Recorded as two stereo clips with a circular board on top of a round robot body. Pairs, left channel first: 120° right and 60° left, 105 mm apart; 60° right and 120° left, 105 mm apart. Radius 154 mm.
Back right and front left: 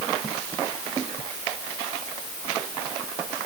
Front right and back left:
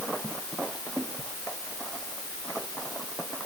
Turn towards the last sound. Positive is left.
No sound to turn to.